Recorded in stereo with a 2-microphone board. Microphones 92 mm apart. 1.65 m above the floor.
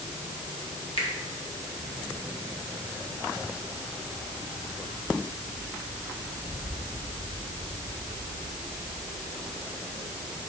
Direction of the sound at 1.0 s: 80° left.